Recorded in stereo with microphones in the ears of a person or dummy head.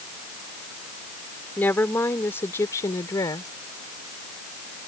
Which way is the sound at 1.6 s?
10° left (ahead or behind).